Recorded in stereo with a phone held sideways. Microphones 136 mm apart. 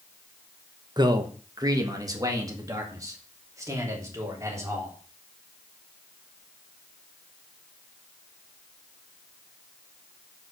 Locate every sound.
1.0 s a man speaking: 30° right (ahead or behind), 1.0 m; by 4.9 s 20° right (ahead or behind), 3.5 m